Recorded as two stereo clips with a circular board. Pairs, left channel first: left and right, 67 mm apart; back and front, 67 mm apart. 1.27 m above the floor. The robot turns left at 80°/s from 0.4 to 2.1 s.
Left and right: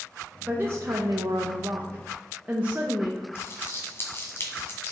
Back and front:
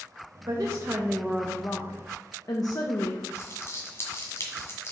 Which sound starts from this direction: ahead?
A woman speaking, at 0.5 s.